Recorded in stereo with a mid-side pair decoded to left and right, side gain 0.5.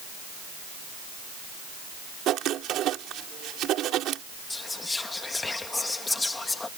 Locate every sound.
2.3 s writing: 70° right
4.5 s whispering: 20° left